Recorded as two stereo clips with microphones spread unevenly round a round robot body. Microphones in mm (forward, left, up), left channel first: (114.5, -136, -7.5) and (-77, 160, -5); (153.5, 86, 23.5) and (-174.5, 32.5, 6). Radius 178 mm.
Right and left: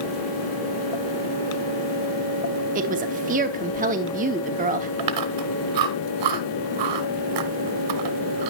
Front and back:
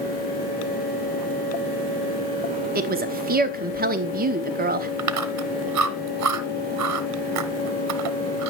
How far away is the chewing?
About 1.4 m.